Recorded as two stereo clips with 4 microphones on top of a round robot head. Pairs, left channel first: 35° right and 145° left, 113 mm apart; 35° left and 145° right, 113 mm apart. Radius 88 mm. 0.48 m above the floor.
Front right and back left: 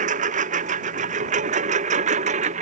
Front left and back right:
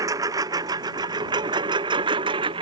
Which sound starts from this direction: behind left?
A lawn mower, at 0.0 s.